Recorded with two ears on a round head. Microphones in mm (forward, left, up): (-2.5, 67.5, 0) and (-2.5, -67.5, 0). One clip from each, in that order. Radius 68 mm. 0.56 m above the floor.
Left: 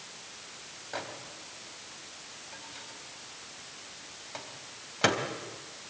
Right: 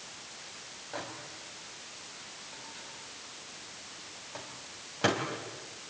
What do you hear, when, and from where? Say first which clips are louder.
0.9 s a microwave: left 2 dB; 40° left (ahead or behind), 3 m